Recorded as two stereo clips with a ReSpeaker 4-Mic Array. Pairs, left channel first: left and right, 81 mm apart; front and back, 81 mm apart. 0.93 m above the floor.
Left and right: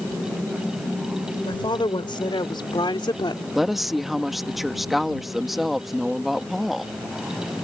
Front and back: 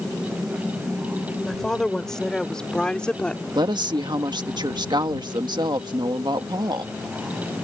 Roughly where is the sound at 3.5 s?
Behind.